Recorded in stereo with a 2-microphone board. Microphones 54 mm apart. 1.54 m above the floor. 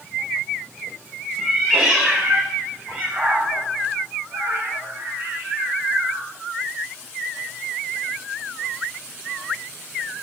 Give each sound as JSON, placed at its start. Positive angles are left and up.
{"t": 1.4, "sound": "a cat meowing", "side_deg": -5, "distance_m": 3.0}